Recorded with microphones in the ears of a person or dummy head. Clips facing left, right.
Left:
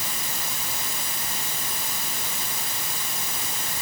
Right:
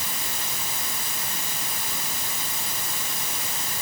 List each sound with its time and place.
Only background noise.